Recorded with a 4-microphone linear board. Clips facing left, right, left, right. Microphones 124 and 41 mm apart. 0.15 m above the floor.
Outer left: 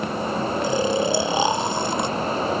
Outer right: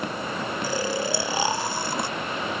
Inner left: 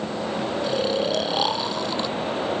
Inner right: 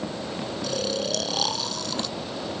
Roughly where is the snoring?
Left.